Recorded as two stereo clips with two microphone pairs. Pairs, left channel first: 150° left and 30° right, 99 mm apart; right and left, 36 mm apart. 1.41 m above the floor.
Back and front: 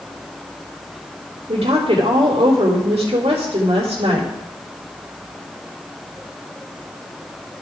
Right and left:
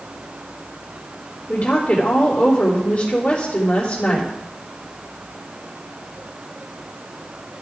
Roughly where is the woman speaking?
Ahead right.